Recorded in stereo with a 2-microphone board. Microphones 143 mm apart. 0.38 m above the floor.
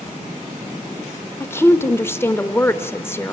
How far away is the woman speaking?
About 0.9 m.